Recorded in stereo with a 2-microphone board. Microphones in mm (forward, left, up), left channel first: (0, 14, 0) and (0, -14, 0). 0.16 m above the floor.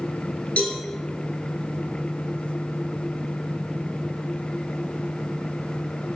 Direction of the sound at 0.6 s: 60° left (ahead or behind).